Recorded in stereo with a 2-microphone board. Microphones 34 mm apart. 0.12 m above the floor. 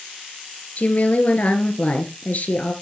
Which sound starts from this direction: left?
A woman speaking, at 0.8 s.